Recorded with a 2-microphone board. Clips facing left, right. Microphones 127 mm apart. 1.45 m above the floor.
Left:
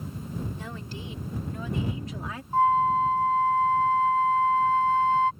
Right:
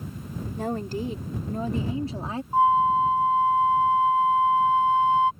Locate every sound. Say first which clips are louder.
0.6 s a woman speaking: right 10 dB; 50° right (ahead or behind); by 2.4 s 30° right (ahead or behind)
2.5 s a flute: right 2 dB; 15° right (ahead or behind)